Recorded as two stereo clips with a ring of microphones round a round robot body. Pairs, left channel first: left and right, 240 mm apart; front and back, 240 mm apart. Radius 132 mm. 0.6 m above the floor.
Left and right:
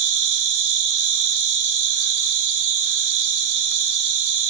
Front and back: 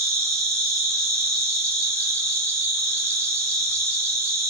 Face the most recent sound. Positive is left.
turn(degrees=-100)